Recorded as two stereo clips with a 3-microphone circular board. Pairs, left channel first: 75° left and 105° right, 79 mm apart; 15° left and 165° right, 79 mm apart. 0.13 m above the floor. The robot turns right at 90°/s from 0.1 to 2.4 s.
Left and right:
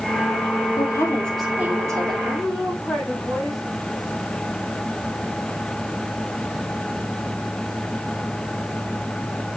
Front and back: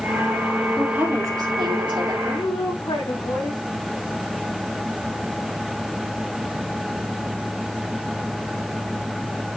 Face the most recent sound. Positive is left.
turn(degrees=-10)